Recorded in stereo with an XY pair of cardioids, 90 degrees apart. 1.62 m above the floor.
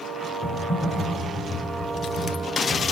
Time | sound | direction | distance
0.4 | typing on a keyboard | 40° left | 4 m